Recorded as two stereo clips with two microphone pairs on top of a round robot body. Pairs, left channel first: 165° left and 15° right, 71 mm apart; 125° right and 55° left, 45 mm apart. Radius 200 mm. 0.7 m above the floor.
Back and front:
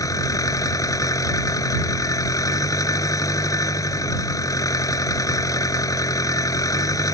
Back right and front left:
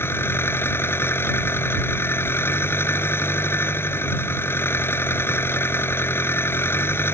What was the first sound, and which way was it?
An engine running, 155° right.